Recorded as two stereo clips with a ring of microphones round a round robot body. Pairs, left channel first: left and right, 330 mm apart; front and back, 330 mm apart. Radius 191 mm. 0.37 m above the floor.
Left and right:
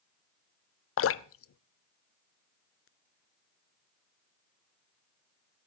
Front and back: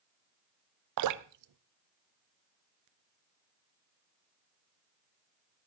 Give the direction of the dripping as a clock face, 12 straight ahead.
7 o'clock.